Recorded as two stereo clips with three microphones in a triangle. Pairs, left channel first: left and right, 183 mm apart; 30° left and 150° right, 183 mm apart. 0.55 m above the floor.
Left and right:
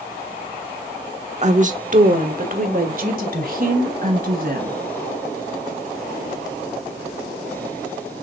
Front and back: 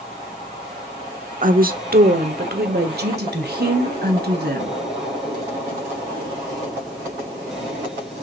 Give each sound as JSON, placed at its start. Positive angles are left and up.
{"t": 1.4, "sound": "a woman speaking", "azimuth_deg": -130, "distance_m": 1.0}